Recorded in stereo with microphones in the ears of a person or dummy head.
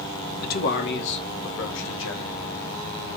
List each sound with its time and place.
0.4 s a man speaking: 50° left (ahead or behind), 1.4 m; by 2.4 s 70° left (ahead or behind), 3.5 m